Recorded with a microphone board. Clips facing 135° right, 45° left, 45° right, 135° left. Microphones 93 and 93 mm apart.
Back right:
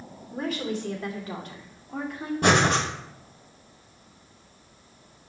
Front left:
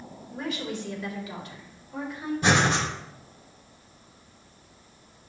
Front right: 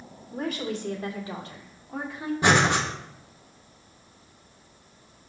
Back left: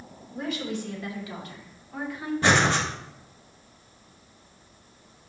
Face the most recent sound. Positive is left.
turn(degrees=-120)